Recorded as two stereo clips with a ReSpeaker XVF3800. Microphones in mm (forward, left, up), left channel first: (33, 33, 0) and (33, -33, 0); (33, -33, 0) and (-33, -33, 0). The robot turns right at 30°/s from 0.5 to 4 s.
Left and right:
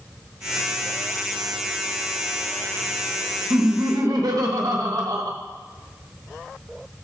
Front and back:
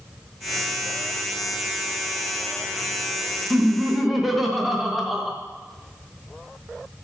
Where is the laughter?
105° right, 1.6 m; by 5.4 s 90° right, 1.6 m.